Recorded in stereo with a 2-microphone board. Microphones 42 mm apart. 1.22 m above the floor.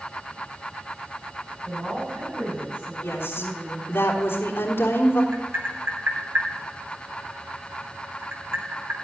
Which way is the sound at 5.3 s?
60° right (ahead or behind).